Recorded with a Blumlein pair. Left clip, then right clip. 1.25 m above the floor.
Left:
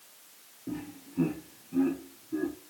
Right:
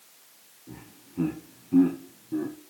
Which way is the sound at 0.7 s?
30° left.